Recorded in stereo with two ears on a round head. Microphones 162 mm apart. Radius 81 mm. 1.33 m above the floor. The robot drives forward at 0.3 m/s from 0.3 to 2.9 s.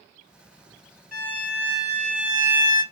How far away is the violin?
About 1.4 m.